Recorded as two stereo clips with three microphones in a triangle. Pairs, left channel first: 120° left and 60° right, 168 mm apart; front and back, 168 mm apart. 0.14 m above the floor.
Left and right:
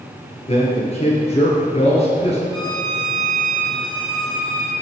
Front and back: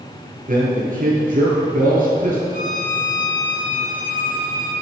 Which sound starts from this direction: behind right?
A violin, at 2.5 s.